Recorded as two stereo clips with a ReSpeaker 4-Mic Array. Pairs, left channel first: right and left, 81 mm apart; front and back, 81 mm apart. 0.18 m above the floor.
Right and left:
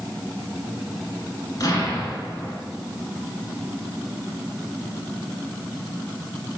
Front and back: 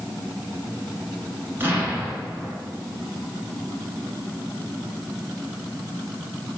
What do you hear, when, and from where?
1.6 s an explosion: 120° right, 1.4 m